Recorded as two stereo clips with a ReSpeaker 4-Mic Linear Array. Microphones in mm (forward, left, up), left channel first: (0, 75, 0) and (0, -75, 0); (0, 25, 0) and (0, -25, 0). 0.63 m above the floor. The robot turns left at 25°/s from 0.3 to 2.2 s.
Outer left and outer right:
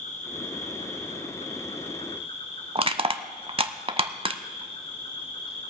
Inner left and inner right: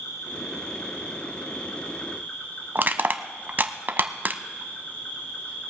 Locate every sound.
0.0 s an insect: 95° left, 4 m; by 5.7 s 50° left, 4 m
2.8 s crushing: 40° right (ahead or behind), 0.6 m